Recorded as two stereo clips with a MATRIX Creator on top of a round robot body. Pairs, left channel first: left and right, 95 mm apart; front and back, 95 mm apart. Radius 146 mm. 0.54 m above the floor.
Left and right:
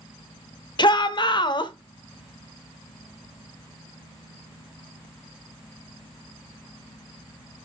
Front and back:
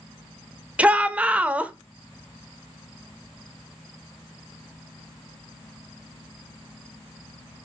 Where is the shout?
105° left, 0.9 m.